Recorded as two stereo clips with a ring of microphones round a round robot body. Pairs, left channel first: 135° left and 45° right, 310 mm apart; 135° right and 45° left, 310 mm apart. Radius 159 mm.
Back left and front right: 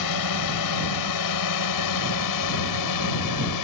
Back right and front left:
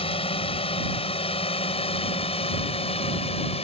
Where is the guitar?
I don't hear a guitar.